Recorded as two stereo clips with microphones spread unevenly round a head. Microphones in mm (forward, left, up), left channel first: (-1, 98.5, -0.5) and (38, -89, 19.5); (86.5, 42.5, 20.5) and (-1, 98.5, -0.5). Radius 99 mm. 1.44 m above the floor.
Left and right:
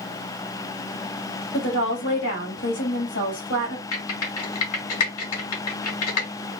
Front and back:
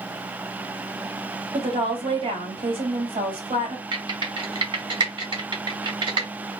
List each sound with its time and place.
1.5 s a woman speaking: 130° left, 3 m
3.9 s typing on a keyboard: 115° left, 1.9 m